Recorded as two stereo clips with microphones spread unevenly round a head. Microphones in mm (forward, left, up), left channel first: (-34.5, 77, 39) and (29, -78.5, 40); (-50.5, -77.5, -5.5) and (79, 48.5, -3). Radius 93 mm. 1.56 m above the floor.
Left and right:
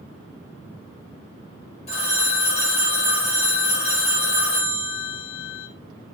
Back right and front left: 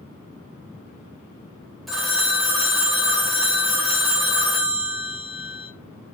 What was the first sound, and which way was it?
A phone ringing, 135° left.